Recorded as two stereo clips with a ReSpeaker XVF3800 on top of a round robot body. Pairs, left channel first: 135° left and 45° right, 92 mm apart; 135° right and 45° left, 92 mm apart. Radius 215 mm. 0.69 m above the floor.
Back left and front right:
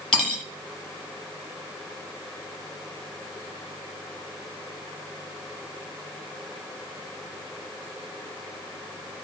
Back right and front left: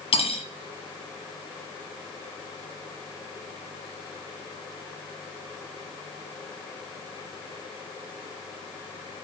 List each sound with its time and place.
0.1 s cutlery clinking: 145° right, 0.9 m